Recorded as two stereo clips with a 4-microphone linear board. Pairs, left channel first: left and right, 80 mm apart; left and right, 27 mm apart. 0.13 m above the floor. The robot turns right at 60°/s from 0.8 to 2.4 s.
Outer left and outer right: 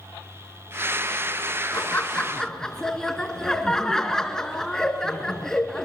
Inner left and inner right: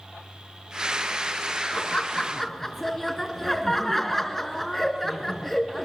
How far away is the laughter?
About 1.7 m.